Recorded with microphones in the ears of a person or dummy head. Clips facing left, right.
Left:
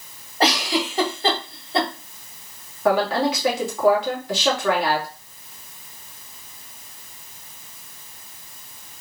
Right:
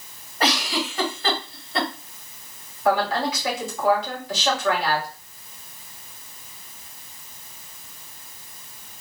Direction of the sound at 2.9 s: 60° left (ahead or behind).